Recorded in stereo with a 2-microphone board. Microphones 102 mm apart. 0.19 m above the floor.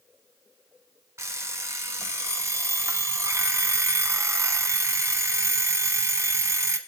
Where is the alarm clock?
30° right (ahead or behind), 0.8 m.